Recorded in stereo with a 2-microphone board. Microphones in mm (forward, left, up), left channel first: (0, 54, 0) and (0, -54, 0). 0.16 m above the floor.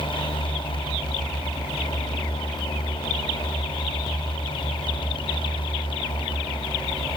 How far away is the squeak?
I don't hear a squeak.